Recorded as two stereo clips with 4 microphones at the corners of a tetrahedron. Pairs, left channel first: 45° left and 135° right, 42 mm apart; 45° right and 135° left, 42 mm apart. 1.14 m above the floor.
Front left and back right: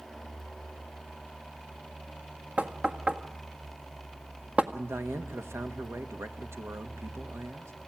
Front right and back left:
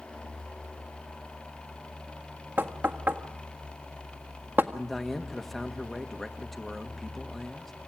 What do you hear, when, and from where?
2.6 s knocking: 170° left, 1.6 m
4.7 s a man speaking: 130° right, 1.6 m